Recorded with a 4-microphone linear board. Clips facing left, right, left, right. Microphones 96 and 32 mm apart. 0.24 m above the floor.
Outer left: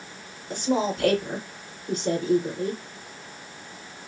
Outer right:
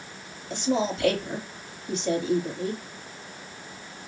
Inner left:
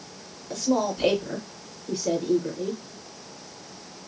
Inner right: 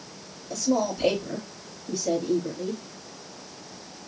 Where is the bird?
No bird in this recording.